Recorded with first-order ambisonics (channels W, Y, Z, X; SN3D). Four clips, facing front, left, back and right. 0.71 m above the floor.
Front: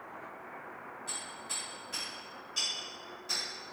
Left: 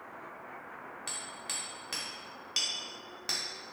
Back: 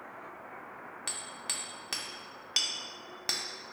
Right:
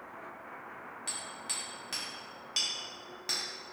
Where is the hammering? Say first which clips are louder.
Even, back 3 dB; 175° left, 0.6 m.